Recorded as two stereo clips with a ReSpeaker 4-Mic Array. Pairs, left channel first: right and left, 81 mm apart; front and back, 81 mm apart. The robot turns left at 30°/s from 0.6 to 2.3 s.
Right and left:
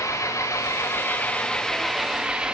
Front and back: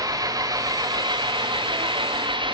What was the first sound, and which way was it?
An engine running, 140° right.